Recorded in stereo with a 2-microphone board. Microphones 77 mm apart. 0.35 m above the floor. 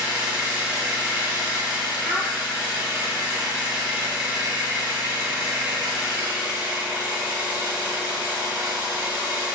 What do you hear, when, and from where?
0.0 s an engine running: 15° right (ahead or behind), 1.1 m
2.0 s a child speaking: 30° left (ahead or behind), 2 m